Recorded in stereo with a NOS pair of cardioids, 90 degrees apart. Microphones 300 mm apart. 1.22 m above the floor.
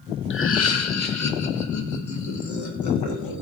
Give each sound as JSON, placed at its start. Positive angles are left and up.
{"t": 0.3, "sound": "laughter", "azimuth_deg": 40, "distance_m": 1.1}